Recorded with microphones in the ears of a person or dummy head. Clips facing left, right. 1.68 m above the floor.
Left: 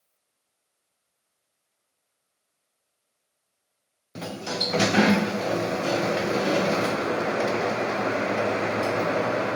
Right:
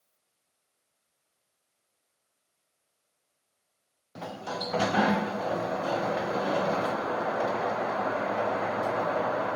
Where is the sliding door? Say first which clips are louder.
Left 4 dB; 40° left (ahead or behind).